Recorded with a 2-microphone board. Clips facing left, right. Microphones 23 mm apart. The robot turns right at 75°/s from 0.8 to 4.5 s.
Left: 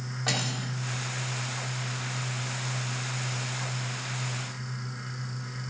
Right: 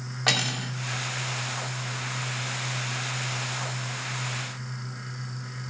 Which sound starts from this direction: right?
Cutlery clinking, at 0.3 s.